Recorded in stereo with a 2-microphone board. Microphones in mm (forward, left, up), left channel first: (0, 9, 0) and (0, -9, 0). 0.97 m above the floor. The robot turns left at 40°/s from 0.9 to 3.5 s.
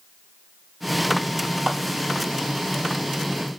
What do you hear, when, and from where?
1.7 s a clap: 45° right (ahead or behind), 2 m; by 1.8 s 40° right (ahead or behind), 2 m